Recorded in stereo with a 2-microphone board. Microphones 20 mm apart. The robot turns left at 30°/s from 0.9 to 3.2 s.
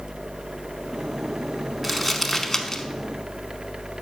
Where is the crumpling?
5° right (ahead or behind), 0.6 m; by 2.8 s 25° left (ahead or behind), 0.6 m.